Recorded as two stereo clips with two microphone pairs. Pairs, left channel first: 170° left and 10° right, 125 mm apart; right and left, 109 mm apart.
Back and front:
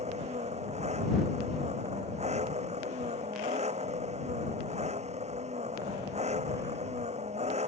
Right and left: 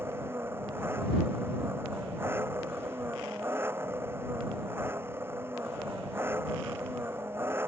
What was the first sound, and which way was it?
An engine running, 20° left.